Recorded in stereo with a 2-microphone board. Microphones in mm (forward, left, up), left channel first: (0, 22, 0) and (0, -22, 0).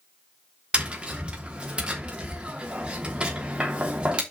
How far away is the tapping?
About 3 m.